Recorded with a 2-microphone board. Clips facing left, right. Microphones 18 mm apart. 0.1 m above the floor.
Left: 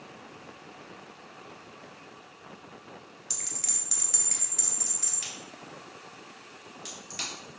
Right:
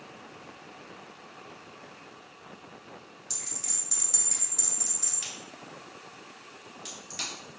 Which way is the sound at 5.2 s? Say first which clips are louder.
Even; 5° left (ahead or behind).